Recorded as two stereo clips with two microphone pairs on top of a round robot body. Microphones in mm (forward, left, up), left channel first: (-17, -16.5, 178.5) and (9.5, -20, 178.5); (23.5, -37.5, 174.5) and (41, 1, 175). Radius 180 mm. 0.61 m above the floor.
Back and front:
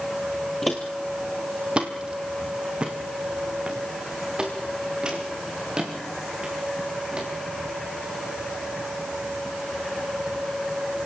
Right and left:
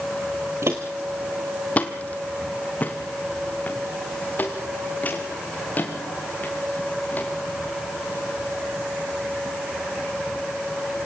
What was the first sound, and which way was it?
Footsteps, 90° left.